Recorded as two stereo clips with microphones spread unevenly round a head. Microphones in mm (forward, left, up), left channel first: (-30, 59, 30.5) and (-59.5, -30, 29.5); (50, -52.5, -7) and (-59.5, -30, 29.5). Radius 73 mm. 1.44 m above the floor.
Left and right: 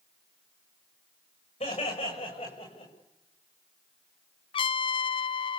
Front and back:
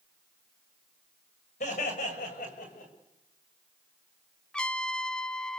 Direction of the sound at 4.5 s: 60° left.